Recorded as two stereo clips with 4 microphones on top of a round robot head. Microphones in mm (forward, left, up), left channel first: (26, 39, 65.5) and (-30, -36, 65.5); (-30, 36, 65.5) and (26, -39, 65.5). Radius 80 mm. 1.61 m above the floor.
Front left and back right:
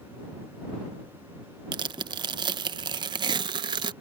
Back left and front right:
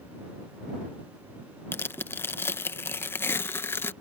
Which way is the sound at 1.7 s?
165° right.